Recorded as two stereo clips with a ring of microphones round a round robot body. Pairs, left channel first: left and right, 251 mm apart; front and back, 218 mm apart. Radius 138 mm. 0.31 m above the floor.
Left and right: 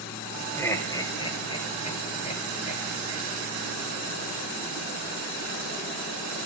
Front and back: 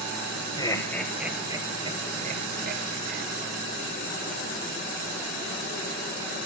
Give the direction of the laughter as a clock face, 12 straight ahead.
11 o'clock.